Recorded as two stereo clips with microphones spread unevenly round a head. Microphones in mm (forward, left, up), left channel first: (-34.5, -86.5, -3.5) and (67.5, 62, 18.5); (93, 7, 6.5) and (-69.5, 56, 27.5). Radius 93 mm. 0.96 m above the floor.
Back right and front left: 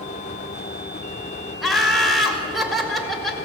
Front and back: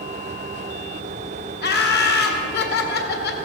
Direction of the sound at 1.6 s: 40° right.